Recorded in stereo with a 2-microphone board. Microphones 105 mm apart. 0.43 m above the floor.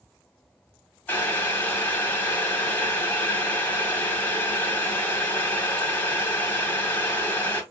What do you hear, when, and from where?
1.1 s boiling: 20° left (ahead or behind), 1.1 m